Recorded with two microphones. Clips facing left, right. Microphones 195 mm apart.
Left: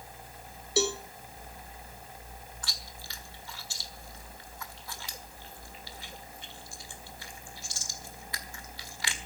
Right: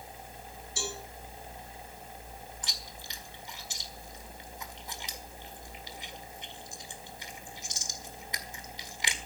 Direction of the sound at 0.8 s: 75° left (ahead or behind).